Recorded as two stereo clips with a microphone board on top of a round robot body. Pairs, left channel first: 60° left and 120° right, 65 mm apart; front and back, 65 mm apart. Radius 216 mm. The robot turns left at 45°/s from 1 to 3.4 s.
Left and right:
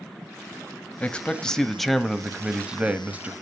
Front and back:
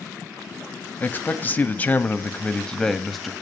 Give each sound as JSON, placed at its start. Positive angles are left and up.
{"t": 1.0, "sound": "a man speaking", "azimuth_deg": 10, "distance_m": 1.0}